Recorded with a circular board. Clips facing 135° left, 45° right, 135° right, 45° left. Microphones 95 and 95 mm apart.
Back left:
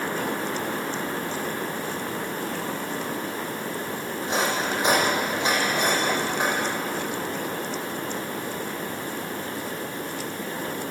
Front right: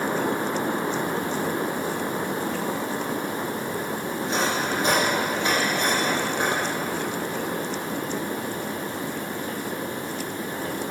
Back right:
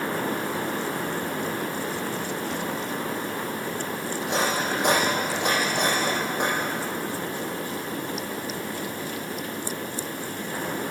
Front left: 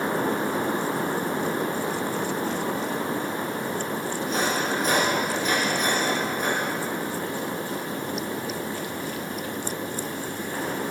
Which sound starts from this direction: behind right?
Cutlery clinking, at 4.2 s.